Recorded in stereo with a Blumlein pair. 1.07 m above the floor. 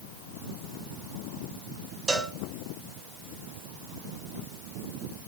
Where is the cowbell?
10° right, 4.5 m.